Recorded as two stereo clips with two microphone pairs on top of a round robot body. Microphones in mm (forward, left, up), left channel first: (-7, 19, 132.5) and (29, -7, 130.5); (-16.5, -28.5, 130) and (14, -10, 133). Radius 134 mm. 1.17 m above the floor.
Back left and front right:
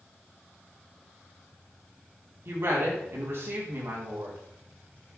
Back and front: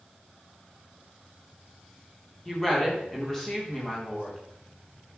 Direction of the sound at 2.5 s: 75° right.